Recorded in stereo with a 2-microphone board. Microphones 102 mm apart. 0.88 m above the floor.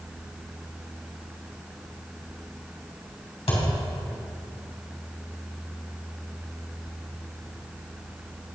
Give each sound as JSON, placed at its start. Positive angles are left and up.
{"t": 3.5, "sound": "a thud", "side_deg": 70, "distance_m": 3.0}